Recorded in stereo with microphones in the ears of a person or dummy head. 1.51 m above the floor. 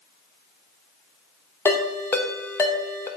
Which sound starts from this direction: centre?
A ringtone, at 1.6 s.